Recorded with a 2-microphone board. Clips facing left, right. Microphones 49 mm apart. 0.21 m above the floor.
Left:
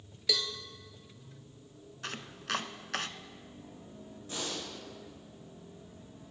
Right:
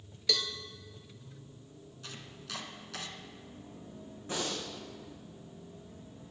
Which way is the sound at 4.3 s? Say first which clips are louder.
Right 3 dB; 30° right (ahead or behind).